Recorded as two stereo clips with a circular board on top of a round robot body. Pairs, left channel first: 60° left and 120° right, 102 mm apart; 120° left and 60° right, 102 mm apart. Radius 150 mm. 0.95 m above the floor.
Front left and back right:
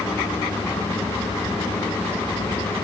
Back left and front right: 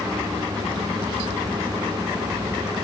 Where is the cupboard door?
I don't hear a cupboard door.